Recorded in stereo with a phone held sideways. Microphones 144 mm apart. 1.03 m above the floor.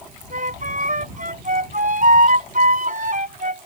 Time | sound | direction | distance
0.3 | a flute | 70° right (ahead or behind) | ?